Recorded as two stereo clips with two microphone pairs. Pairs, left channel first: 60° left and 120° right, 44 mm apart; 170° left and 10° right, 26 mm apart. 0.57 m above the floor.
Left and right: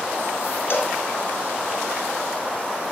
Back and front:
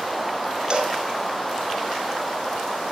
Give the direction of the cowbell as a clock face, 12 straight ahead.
10 o'clock.